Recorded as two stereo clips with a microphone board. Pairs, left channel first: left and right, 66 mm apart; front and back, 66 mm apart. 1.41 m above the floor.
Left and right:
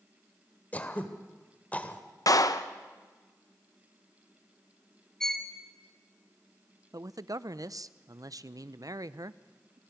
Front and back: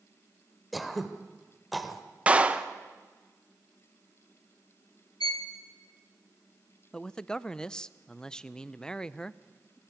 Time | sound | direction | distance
0.7 | throat clearing | 90° left | 1.2 m
2.3 | a clap | 110° left | 0.8 m
5.2 | a violin | 5° left | 1.6 m
6.9 | a man speaking | 75° right | 0.5 m